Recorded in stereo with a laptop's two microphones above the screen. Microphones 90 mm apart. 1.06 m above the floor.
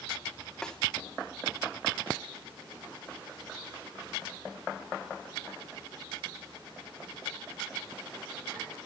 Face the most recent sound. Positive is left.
turn(degrees=5)  # may be behind; listen again after turning